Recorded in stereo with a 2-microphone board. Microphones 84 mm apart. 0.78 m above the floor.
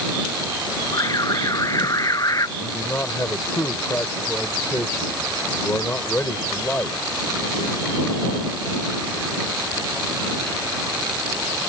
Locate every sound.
0.9 s an alarm: 45° left (ahead or behind)
2.6 s a man speaking: 25° left (ahead or behind)